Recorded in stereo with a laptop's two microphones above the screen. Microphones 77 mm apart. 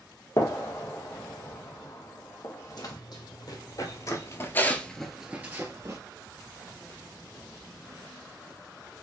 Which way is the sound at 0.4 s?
45° left (ahead or behind).